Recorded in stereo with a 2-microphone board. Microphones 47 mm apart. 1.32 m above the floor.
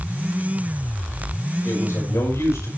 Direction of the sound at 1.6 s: 90° left.